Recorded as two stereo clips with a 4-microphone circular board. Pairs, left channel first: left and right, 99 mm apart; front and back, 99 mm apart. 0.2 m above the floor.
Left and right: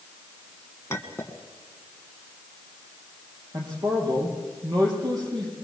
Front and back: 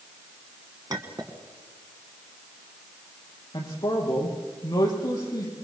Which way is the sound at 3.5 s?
50° right.